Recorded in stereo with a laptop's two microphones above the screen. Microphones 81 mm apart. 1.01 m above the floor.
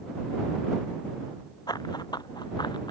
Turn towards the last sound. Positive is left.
turn(degrees=65)  # may be behind; listen again after turning